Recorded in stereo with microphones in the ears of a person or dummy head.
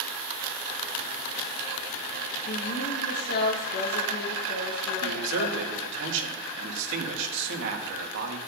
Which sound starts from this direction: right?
A man speaking, at 5.0 s.